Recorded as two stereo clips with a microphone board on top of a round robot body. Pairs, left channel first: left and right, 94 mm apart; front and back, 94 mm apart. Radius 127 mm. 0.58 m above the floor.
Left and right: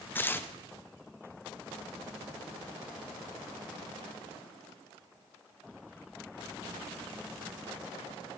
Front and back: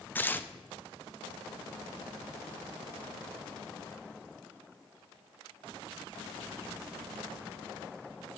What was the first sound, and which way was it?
Tearing paper, 45° left.